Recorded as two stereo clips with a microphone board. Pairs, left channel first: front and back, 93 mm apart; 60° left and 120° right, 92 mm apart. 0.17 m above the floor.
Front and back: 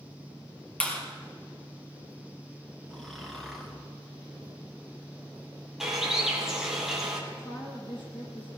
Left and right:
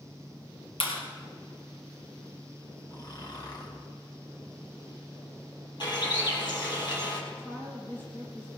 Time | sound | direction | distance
0.8 | a clap | 75° left | 3 m
2.9 | snoring | 85° left | 2.5 m
5.8 | a bird | 95° left | 3 m
7.3 | a woman speaking | 5° right | 5 m